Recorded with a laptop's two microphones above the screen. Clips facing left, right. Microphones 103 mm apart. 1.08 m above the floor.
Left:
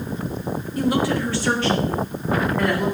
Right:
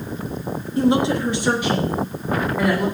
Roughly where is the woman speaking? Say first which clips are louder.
Right 3 dB; right.